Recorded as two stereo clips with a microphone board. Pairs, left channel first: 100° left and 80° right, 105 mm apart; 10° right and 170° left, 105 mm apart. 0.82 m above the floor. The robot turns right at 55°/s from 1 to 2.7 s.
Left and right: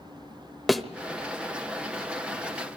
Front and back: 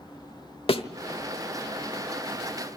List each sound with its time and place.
0.7 s a thud: 10° left, 1.0 m